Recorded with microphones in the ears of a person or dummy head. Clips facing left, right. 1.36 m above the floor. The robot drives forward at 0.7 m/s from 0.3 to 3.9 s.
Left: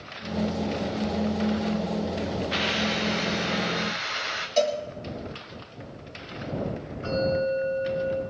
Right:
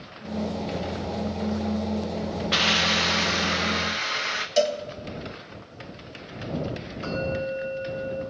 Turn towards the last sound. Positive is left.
turn(degrees=-75)  # may be behind; listen again after turning